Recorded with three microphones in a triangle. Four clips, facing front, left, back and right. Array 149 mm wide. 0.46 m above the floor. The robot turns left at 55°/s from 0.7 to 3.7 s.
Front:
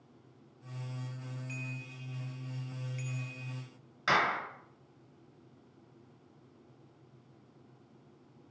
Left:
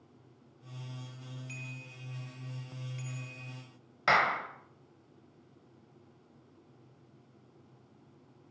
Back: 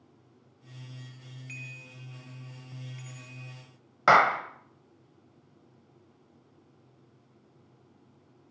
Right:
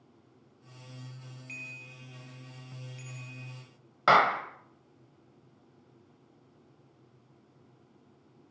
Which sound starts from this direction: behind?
A bicycle bell, at 1.5 s.